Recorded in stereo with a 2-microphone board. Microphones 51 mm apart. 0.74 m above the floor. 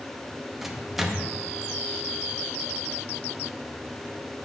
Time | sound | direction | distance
0.6 | a microwave | 5° right (ahead or behind) | 0.6 m